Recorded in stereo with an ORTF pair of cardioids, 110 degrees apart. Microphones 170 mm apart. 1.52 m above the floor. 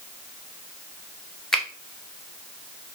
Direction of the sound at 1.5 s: Straight ahead.